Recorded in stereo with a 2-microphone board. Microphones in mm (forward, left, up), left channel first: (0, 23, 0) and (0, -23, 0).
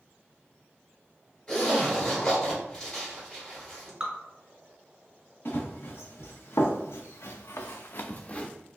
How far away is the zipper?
About 1.8 m.